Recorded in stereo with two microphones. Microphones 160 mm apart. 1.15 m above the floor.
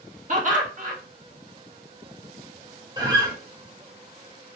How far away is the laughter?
About 1.4 m.